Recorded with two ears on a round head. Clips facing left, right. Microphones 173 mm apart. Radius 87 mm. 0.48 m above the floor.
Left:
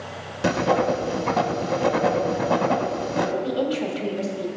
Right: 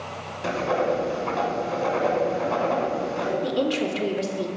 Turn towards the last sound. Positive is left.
turn(degrees=-30)  # may be behind; listen again after turning